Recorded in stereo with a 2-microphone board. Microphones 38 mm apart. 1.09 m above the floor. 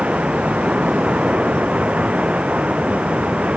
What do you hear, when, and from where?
0.0 s running water: 30° right (ahead or behind)